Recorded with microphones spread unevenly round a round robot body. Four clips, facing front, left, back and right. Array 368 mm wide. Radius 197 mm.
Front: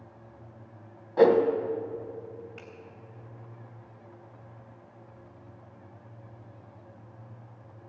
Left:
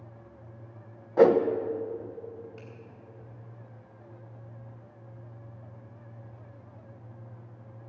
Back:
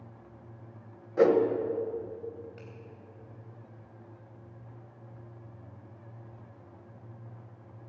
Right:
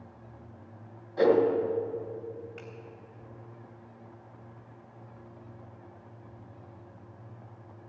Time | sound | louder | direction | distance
1.2 | a whoosh | left 3 dB, front 3 dB | 70° left | 1.1 m
2.6 | a finger snap | right 2 dB, front 1 dB | 115° right | 2.5 m